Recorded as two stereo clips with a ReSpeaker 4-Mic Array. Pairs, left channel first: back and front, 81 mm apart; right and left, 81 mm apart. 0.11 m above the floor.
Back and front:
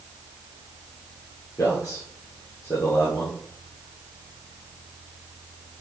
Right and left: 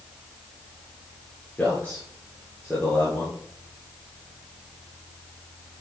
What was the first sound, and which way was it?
A man speaking, 155° right.